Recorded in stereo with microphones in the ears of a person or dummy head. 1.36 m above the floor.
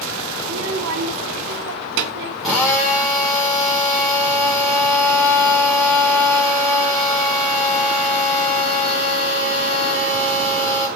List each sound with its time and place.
0.4 s a child speaking: 55° right (ahead or behind), 0.9 m; by 2.3 s 60° right (ahead or behind), 2.5 m
2.4 s a drill: 10° right (ahead or behind), 5 m